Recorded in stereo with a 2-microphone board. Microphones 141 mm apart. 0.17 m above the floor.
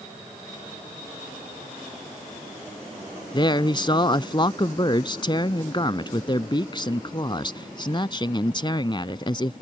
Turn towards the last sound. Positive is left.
turn(degrees=35)  # may be behind; listen again after turning